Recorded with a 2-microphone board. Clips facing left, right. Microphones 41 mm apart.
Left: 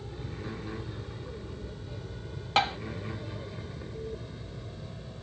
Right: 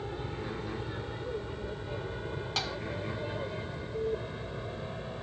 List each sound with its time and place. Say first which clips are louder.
0.0 s an aircraft: right 3 dB; 35° right (ahead or behind)
2.6 s tapping: left 10 dB; 40° left (ahead or behind)